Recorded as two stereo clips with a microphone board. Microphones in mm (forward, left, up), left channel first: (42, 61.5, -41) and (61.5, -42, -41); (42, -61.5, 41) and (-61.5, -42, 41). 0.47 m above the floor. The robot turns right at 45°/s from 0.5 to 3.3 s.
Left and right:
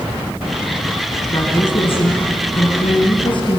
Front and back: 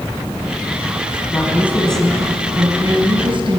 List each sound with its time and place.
1.3 s a woman speaking: 45° left, 4.5 m; by 3.6 s 135° left, 4.5 m